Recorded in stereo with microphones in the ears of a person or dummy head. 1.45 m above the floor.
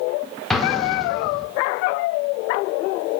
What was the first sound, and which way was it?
An explosion, 5° left (ahead or behind).